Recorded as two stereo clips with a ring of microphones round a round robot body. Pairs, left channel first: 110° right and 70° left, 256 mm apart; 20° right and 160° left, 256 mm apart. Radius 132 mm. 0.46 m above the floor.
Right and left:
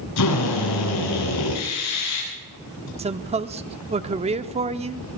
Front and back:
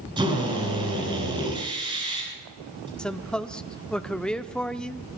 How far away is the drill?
About 8 m.